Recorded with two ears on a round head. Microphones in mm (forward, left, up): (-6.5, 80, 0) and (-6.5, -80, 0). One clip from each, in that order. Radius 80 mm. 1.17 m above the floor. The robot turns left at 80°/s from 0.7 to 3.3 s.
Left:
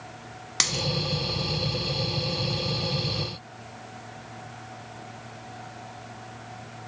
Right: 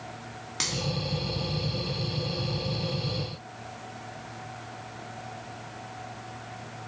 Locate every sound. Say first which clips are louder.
0.6 s a dropped coin: left 5 dB; 40° left (ahead or behind), 0.9 m; by 0.8 s 35° left (ahead or behind), 0.9 m